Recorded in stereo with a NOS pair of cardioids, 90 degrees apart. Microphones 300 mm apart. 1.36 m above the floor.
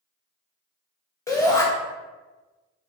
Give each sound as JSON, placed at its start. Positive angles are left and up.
{"t": 1.3, "sound": "a shout", "azimuth_deg": 10, "distance_m": 1.7}